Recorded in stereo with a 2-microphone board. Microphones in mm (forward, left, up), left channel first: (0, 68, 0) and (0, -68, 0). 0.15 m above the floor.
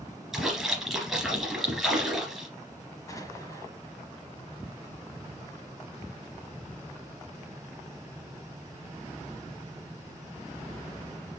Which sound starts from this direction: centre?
A splash, at 0.3 s.